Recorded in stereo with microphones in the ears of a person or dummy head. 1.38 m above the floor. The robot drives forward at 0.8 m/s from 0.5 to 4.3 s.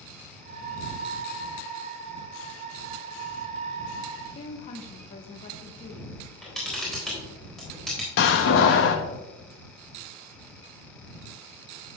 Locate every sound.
4.3 s a woman speaking: 35° left (ahead or behind), 1.0 m
6.2 s a camera shutter: centre (ahead or behind), 3.5 m
8.2 s a door slam: 65° left (ahead or behind), 1.1 m